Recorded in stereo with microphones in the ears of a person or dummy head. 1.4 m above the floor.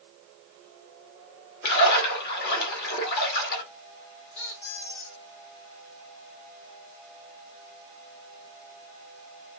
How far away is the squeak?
About 1.2 m.